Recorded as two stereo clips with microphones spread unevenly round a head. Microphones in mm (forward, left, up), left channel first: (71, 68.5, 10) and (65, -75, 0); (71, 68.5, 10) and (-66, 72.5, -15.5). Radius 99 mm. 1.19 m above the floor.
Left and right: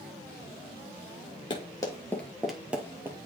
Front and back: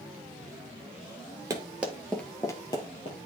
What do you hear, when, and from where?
1.5 s running footsteps: 110° left, 1.4 m; by 3.2 s 20° right, 1.8 m